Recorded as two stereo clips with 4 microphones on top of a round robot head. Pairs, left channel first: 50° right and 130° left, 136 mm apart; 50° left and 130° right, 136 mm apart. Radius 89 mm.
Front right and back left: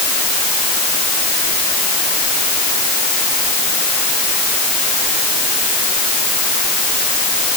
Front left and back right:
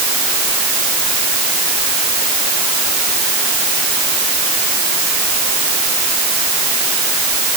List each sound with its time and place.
Only background noise.